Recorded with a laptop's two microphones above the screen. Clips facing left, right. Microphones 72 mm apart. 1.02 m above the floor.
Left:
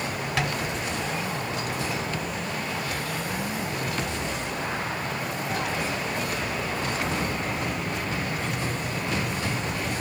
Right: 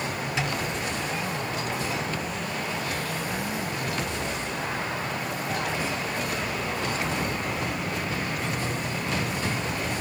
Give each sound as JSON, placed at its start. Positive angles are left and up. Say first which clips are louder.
{"t": 0.4, "sound": "tapping", "louder": "left 2 dB", "side_deg": 60, "distance_m": 1.5}